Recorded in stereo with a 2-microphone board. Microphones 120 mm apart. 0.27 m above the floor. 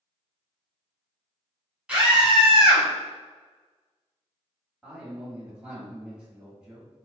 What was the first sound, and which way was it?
A scream, 10° right (ahead or behind).